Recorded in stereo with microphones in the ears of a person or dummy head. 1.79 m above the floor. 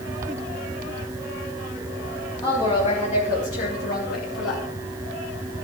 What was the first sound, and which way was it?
A woman speaking, 20° left (ahead or behind).